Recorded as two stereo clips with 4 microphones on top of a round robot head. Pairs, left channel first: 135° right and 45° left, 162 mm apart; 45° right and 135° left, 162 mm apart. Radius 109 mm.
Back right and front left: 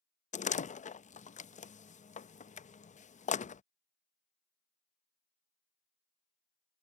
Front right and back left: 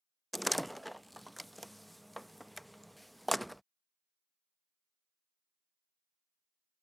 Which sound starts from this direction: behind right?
A door slam, at 0.3 s.